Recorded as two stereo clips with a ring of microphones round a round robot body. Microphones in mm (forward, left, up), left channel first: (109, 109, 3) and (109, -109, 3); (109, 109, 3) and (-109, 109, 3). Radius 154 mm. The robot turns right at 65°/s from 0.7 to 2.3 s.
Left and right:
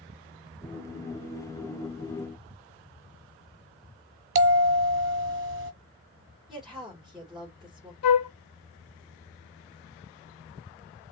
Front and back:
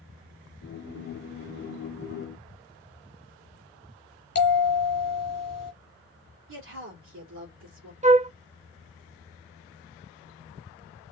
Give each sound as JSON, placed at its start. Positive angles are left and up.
{"t": 4.3, "sound": "a bell", "azimuth_deg": -65, "distance_m": 1.2}
{"t": 6.5, "sound": "a woman speaking", "azimuth_deg": 180, "distance_m": 2.5}
{"t": 8.0, "sound": "a flute", "azimuth_deg": 120, "distance_m": 0.7}